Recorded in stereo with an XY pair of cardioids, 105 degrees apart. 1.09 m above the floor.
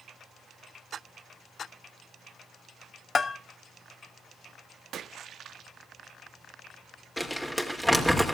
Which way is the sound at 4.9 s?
60° right.